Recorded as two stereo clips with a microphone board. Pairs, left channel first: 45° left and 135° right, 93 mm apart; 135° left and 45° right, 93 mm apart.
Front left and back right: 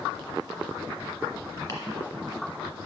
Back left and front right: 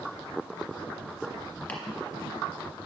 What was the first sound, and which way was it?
Chopping, 75° left.